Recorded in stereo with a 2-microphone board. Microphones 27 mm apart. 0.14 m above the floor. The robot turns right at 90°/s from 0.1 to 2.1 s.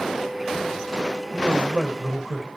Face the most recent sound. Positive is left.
turn(degrees=-10)